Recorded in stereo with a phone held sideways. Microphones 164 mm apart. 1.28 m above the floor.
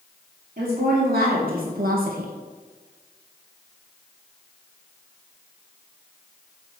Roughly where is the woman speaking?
Right.